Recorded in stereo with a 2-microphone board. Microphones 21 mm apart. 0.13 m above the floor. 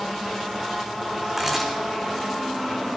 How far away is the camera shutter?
About 1.9 m.